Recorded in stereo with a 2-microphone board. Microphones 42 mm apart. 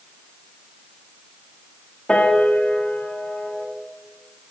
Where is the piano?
25° left (ahead or behind), 2 m.